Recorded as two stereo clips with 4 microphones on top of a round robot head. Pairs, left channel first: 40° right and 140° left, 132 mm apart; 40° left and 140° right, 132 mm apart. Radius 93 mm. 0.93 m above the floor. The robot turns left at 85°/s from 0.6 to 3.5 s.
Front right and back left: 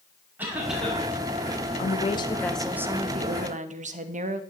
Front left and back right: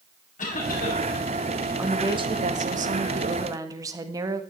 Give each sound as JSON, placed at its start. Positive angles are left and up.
{"t": 0.4, "sound": "a cough", "azimuth_deg": 65, "distance_m": 7.0}
{"t": 1.8, "sound": "a woman speaking", "azimuth_deg": -60, "distance_m": 1.9}